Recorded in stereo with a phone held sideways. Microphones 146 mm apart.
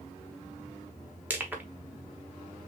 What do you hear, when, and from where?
1.3 s crushing: 10° right (ahead or behind), 1.1 m